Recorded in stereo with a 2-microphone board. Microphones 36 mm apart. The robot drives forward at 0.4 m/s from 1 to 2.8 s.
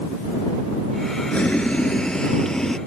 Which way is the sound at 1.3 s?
40° left (ahead or behind).